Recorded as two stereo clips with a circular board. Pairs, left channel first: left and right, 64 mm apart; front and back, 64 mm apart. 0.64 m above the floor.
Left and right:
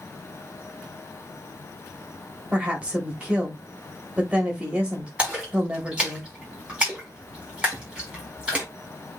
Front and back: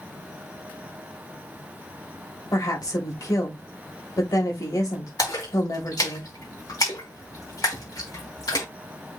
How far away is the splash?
About 5.5 m.